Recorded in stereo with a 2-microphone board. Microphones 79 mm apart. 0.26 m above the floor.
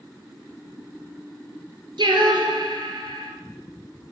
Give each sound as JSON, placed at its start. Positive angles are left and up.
{"t": 2.0, "sound": "singing", "side_deg": -85, "distance_m": 1.0}